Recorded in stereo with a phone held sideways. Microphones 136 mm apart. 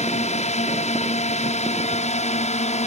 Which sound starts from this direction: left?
A drone, at 0.0 s.